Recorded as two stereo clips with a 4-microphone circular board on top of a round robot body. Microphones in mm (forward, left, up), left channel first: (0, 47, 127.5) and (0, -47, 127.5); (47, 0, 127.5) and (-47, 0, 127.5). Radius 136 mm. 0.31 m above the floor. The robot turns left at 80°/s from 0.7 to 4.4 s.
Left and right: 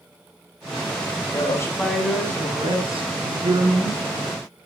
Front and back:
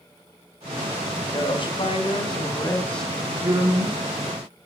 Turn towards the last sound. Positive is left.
turn(degrees=165)